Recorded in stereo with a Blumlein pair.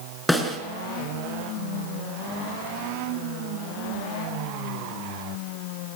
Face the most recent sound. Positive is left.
turn(degrees=0)